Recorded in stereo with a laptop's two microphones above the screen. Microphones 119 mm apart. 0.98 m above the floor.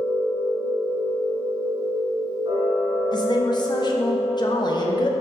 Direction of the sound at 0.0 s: 35° right (ahead or behind).